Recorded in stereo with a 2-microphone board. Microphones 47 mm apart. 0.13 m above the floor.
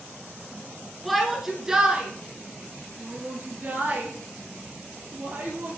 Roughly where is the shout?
Centre.